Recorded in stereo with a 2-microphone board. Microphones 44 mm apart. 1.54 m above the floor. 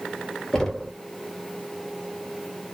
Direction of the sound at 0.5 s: 10° left (ahead or behind).